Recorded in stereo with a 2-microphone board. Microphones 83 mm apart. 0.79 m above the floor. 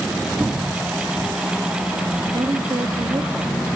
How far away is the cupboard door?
About 1.4 m.